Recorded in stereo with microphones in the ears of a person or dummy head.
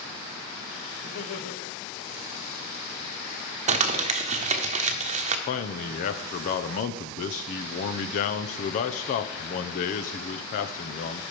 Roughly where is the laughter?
Left.